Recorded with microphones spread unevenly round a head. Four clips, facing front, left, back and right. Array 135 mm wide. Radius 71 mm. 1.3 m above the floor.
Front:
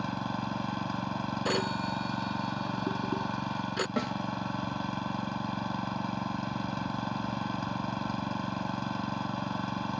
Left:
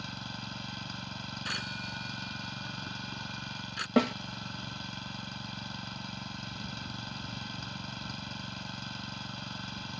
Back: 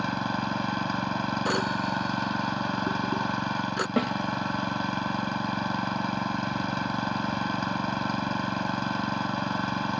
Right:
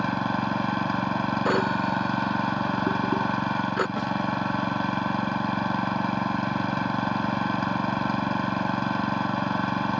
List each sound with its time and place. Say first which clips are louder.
0.0 s an engine running: right 17 dB, back 5 dB; 110° right
1.4 s a phone ringing: right 16 dB, back 1 dB; 90° right
4.0 s a snare drum: left 1 dB, back 7 dB; 120° left